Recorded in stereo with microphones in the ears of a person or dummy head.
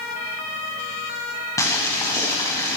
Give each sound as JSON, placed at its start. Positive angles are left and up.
{"t": 1.6, "sound": "boiling", "side_deg": 10, "distance_m": 6.5}